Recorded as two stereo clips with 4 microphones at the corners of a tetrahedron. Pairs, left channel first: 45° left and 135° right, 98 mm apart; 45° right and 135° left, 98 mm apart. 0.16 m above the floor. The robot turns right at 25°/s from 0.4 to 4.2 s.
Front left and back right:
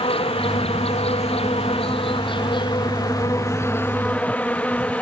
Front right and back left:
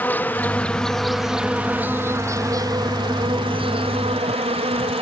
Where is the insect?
30° left; by 5.0 s 125° left.